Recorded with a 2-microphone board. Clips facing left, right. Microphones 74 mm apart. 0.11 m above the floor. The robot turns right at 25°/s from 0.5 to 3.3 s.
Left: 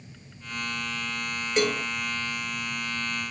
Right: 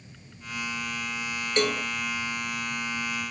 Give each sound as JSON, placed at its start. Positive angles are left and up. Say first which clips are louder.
{"t": 1.6, "sound": "a cowbell", "louder": "left 1 dB", "side_deg": 5, "distance_m": 0.9}